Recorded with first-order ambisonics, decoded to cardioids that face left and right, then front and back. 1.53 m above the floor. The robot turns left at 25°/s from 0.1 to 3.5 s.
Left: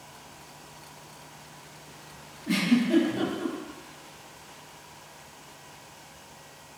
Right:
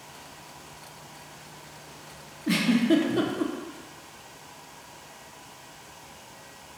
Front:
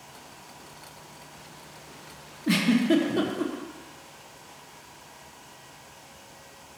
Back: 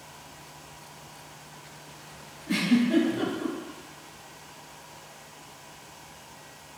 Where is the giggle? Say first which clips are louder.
Right 2 dB, front 2 dB; 25° right, 0.5 m; by 3.5 s 50° right, 0.5 m.